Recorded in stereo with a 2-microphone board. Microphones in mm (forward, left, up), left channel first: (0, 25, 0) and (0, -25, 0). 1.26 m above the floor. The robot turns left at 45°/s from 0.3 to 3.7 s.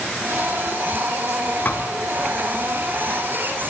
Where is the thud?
35° left (ahead or behind), 1.6 m; by 1.9 s 45° left (ahead or behind), 1.6 m.